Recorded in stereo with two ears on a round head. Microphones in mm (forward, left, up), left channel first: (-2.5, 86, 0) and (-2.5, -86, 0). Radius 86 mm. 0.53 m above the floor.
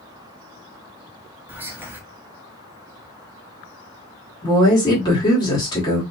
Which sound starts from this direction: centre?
Whispering, at 1.5 s.